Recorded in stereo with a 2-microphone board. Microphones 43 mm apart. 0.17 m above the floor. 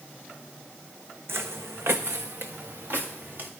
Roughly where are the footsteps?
Right.